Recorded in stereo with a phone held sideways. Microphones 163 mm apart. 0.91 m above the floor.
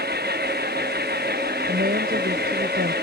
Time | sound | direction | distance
0.0 | an engine running | 80° right | ?
1.7 | a woman speaking | 70° right (ahead or behind) | ?